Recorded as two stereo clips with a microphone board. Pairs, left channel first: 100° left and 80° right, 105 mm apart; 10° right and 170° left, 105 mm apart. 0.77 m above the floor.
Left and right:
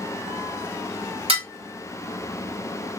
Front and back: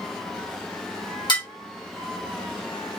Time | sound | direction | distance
1.3 | dishes clattering | 55° right | 1.2 m